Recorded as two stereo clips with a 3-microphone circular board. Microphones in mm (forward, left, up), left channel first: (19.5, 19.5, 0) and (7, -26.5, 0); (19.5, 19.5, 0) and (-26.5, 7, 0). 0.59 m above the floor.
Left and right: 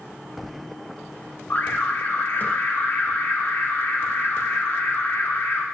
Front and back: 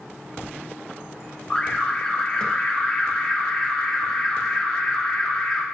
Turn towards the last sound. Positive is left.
turn(degrees=70)